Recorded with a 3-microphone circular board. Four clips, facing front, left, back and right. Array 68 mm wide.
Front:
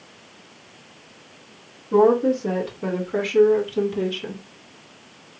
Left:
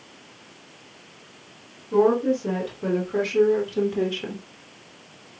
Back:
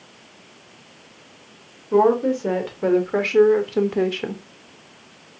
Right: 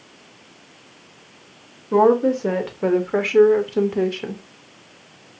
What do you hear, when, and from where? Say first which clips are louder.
1.9 s a woman speaking: right 4 dB, even; 105° right, 1.5 m; by 4.4 s 165° right, 0.8 m